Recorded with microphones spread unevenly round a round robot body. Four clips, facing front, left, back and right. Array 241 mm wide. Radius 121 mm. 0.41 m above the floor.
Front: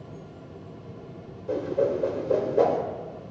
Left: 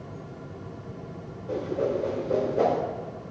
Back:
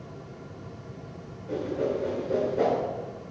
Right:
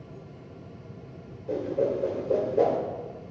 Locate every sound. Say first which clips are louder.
1.5 s a whoosh: right 1 dB, front 3 dB; 50° right, 1.5 m